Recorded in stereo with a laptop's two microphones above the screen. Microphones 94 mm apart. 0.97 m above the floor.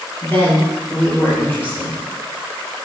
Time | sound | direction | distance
0.2 | a woman speaking | 25° left (ahead or behind) | 3 m